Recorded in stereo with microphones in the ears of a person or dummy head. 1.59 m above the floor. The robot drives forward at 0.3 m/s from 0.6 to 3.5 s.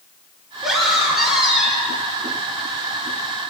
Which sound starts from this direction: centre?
A scream, at 0.6 s.